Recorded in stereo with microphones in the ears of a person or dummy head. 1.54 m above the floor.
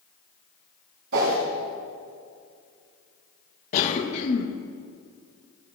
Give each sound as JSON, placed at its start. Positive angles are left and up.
{"t": 1.1, "sound": "a whoosh", "side_deg": -70, "distance_m": 4.0}
{"t": 3.7, "sound": "a cough", "side_deg": 40, "distance_m": 1.9}